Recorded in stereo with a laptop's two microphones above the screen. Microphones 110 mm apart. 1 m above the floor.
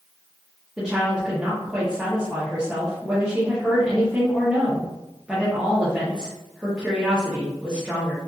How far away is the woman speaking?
About 0.8 m.